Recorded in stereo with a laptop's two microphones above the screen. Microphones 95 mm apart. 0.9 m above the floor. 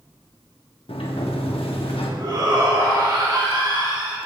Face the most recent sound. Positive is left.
turn(degrees=-45)  # may be behind; listen again after turning